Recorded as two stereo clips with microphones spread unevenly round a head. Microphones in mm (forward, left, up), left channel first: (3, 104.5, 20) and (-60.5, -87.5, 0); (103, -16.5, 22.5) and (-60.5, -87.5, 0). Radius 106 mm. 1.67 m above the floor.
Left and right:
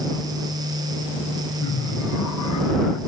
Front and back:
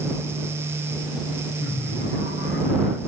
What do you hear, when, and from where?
1.6 s laughter: 70° left; by 3.0 s 75° left